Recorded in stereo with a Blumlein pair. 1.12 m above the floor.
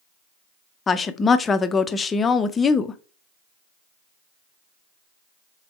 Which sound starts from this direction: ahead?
A woman speaking, at 0.9 s.